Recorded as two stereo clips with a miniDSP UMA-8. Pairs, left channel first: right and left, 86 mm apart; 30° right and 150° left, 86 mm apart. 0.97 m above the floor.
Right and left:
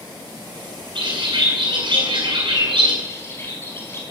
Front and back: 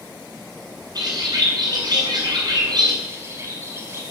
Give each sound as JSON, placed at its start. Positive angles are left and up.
{"t": 0.9, "sound": "a bird", "azimuth_deg": 110, "distance_m": 6.5}
{"t": 3.0, "sound": "a bird", "azimuth_deg": -150, "distance_m": 4.0}